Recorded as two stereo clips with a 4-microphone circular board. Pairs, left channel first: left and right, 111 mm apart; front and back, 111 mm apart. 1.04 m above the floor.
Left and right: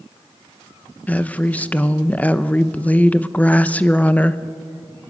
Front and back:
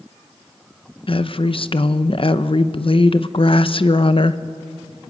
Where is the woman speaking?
15° left, 0.7 m.